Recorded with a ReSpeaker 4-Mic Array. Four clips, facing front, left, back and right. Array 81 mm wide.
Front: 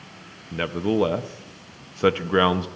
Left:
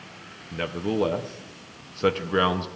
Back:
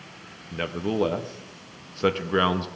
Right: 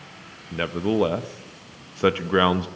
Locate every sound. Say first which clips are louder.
0.5 s a man speaking: right 4 dB, front 4 dB; 55° right, 0.6 m